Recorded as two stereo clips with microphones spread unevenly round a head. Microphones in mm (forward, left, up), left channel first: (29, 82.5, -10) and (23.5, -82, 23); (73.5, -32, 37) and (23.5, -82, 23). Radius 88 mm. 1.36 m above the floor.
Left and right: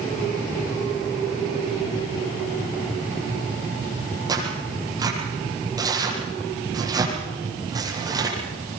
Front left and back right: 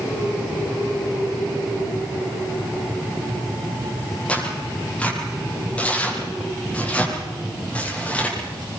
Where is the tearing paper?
25° right, 8.5 m.